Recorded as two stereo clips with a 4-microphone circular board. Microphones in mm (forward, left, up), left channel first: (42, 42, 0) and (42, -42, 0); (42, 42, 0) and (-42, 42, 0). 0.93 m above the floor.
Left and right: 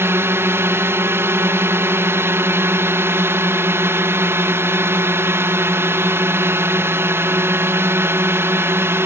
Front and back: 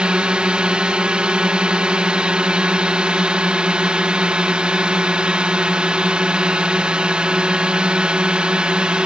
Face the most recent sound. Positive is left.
turn(degrees=-115)